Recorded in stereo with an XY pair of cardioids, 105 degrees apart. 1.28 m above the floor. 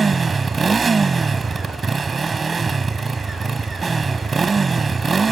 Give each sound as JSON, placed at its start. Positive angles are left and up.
{"t": 0.0, "sound": "a motorcycle", "azimuth_deg": -35}